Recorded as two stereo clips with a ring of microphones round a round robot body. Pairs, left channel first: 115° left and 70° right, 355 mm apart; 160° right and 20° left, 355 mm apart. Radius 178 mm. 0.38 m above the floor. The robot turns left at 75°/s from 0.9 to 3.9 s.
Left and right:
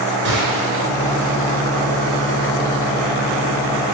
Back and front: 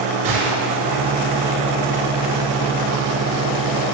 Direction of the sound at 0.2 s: 10° right.